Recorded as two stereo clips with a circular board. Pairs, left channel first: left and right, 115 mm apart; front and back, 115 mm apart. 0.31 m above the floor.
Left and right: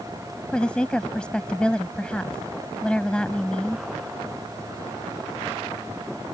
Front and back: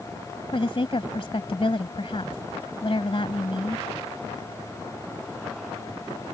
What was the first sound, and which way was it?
A woman speaking, 10° left.